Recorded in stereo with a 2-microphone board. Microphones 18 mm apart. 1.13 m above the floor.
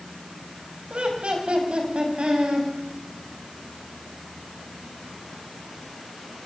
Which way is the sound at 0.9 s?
90° right.